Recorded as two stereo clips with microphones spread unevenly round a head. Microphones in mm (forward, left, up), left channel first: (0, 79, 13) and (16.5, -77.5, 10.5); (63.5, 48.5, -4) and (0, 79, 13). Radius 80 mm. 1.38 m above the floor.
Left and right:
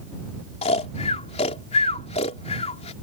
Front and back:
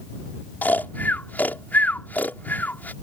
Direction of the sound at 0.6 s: 45° left.